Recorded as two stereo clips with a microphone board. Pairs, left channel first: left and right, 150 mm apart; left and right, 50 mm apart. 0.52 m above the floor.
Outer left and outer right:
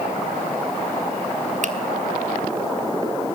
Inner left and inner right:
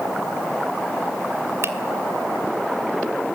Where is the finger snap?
55° right (ahead or behind), 1.6 m.